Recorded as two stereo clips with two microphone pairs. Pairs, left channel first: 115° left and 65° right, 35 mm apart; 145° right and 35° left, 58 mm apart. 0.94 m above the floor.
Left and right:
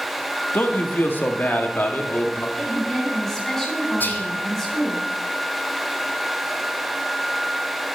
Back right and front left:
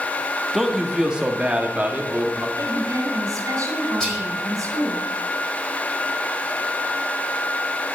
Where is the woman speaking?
35° left, 3.5 m.